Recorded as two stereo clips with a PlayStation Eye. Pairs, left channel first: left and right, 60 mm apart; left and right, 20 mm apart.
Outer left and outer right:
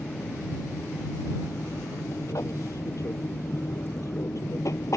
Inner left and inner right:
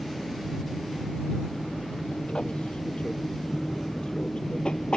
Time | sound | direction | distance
0.0 | an aircraft | 65° left (ahead or behind) | ?